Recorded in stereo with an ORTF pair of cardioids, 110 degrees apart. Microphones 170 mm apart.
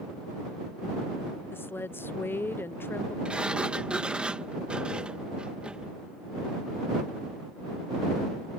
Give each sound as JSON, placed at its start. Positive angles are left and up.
{"t": 1.5, "sound": "a woman speaking", "azimuth_deg": 15}
{"t": 3.2, "sound": "a sliding door", "azimuth_deg": -5}